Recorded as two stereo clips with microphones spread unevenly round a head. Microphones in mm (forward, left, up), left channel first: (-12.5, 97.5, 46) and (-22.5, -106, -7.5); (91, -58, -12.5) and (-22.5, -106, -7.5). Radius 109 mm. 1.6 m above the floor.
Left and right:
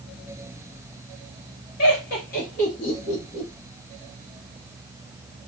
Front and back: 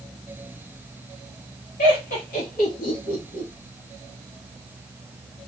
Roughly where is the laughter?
Ahead left.